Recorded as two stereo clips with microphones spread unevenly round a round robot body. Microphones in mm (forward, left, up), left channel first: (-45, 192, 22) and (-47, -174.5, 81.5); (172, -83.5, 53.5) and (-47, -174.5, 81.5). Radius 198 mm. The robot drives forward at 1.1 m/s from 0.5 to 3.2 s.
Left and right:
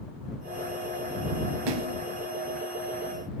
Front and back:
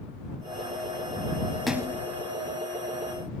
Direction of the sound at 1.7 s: 70° right.